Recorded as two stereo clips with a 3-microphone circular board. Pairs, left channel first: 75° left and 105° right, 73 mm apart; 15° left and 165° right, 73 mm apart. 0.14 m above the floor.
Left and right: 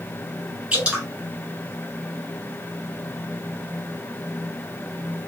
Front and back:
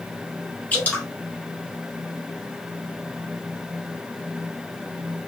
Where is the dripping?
40° right, 0.9 m.